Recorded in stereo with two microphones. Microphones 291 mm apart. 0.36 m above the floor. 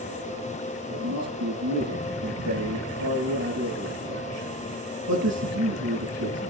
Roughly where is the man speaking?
Right.